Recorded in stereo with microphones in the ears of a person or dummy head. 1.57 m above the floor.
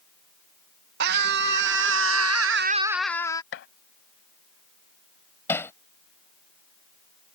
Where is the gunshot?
60° left (ahead or behind).